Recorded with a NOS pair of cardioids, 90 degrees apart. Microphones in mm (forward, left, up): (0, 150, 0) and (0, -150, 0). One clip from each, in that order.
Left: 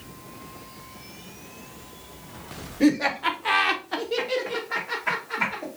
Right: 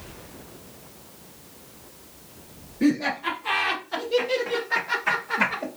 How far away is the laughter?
About 1.2 m.